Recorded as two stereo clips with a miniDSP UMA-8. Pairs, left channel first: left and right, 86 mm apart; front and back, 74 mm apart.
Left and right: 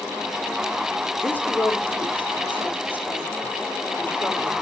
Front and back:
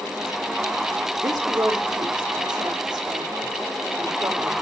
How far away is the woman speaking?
About 4 m.